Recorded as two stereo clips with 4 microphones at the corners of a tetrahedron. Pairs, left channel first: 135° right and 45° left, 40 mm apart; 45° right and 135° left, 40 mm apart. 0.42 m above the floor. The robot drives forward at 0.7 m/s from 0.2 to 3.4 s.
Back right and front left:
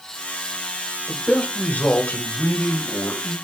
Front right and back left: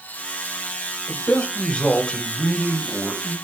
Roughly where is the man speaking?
Right.